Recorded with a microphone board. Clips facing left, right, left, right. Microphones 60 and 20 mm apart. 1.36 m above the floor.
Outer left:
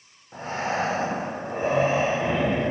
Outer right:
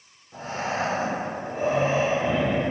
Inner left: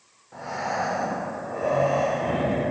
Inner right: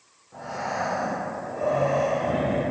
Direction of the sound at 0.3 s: 40° left (ahead or behind).